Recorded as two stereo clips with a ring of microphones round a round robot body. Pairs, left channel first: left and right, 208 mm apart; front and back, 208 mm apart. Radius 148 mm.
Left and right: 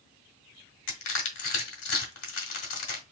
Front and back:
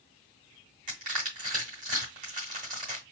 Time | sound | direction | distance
0.9 | crushing | 120° left | 1.2 m